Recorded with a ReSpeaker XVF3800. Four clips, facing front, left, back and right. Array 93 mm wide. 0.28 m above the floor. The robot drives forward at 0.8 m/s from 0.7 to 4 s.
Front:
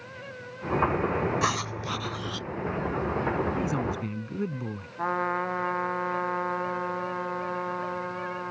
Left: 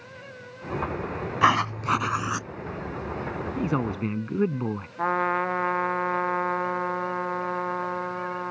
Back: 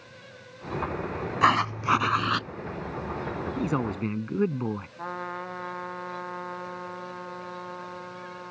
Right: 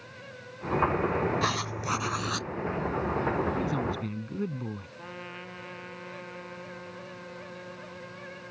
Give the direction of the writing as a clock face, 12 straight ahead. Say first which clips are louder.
Left 9 dB, back 6 dB; 8 o'clock.